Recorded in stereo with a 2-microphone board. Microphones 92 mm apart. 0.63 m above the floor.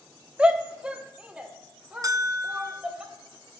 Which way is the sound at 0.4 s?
10° right (ahead or behind).